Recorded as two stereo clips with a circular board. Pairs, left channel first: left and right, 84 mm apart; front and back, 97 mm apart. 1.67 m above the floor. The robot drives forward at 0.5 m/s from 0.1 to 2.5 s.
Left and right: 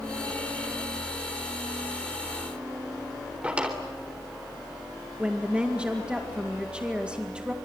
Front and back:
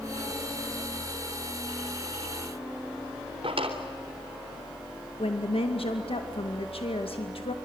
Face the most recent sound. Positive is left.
turn(degrees=-10)